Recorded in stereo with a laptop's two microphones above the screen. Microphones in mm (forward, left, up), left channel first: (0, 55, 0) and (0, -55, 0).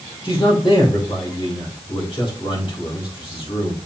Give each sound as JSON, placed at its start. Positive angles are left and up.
{"t": 0.2, "sound": "a man speaking", "side_deg": 50, "distance_m": 3.5}